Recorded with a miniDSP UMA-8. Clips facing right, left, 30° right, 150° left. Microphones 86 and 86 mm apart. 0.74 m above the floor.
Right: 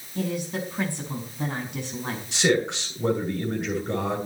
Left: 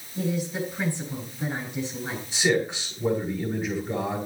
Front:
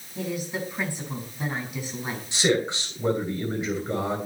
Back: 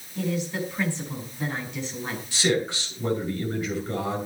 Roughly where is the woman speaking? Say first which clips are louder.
Left 1 dB, back 2 dB; right.